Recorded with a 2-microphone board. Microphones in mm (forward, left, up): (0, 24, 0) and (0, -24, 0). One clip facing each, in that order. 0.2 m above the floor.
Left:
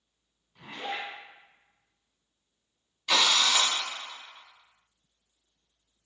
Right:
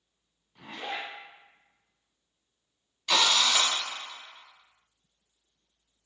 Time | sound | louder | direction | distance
0.6 | a zipper | left 1 dB | 15° right (ahead or behind) | 1.6 m
3.1 | a drill | even | 5° left (ahead or behind) | 0.6 m